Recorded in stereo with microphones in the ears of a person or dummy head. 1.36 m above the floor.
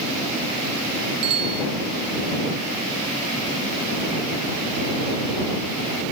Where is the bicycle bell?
65° right (ahead or behind).